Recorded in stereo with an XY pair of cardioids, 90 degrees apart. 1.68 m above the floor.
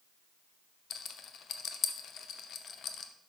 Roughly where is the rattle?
Ahead left.